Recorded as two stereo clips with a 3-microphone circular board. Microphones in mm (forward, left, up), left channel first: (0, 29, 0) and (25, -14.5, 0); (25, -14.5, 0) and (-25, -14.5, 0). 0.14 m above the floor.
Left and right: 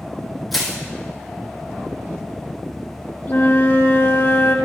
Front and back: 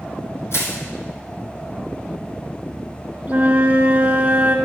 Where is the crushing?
30° left, 2.5 m.